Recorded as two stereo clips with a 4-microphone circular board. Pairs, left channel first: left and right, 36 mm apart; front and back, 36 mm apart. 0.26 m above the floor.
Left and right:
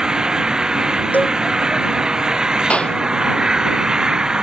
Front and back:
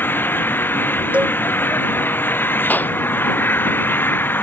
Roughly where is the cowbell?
Behind left.